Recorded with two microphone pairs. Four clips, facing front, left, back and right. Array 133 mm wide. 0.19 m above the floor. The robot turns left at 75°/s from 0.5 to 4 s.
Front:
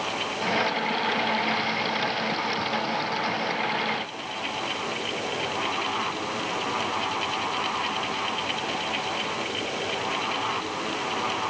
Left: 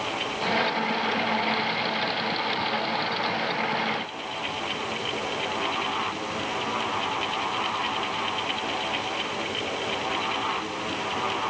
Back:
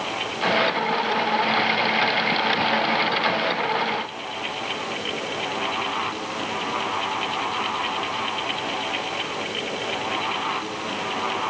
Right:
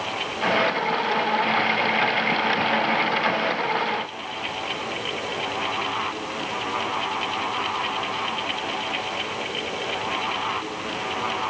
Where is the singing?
No singing in this recording.